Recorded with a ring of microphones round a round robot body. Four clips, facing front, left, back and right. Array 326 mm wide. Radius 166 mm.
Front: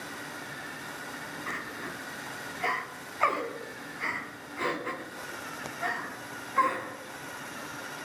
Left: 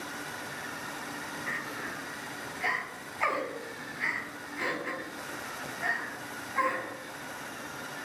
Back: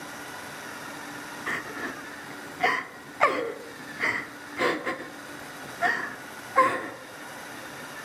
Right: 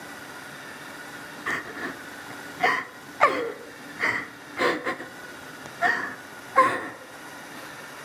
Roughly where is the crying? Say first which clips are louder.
Right 9 dB, back 6 dB; behind right.